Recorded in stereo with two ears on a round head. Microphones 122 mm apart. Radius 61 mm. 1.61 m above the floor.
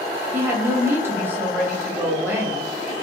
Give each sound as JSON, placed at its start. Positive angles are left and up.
{"t": 0.3, "sound": "a woman speaking", "side_deg": -15, "distance_m": 0.8}